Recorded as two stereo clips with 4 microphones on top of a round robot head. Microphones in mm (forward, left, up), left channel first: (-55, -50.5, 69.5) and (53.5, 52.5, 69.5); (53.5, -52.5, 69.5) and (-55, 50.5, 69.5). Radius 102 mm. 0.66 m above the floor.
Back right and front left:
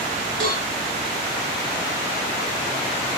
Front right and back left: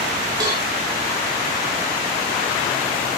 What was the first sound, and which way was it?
A cowbell, 75° left.